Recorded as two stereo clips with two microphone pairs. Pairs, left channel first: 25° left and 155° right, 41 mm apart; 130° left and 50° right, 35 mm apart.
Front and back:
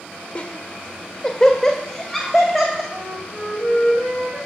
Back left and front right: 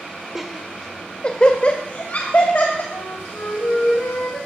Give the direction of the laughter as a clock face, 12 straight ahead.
11 o'clock.